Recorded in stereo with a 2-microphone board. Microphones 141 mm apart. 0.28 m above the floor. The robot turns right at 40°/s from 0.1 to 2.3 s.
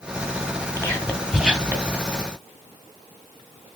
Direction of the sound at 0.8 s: 20° left (ahead or behind).